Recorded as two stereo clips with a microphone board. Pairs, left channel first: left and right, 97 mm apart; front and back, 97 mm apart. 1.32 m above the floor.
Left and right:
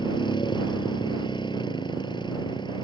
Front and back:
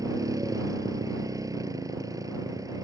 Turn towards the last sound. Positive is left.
turn(degrees=130)